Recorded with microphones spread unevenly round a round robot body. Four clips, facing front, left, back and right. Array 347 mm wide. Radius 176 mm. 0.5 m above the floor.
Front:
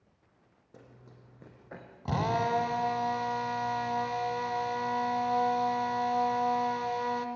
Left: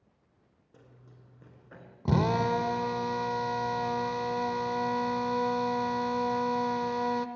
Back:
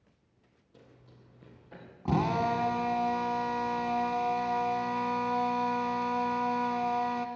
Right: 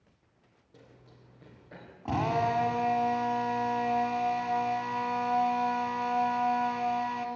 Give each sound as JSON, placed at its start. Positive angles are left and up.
{"t": 0.7, "sound": "running footsteps", "azimuth_deg": 0, "distance_m": 4.5}
{"t": 2.0, "sound": "a drill", "azimuth_deg": 95, "distance_m": 0.9}